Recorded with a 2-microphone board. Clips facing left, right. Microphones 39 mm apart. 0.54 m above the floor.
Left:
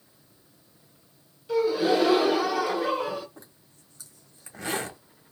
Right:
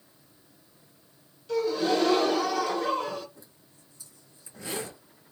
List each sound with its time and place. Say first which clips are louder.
1.5 s a gasp: left 3 dB; 15° left (ahead or behind), 0.9 m
3.4 s a zipper: left 3 dB; 80° left, 1.7 m